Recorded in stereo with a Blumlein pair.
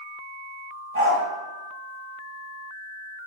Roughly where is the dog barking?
Ahead right.